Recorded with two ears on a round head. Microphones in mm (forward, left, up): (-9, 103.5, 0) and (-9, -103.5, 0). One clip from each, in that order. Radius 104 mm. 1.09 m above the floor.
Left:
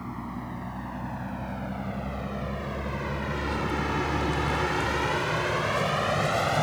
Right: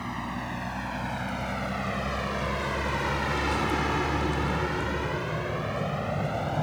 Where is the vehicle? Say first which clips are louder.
Right 4 dB; 75° right (ahead or behind); by 6.6 s 55° left (ahead or behind).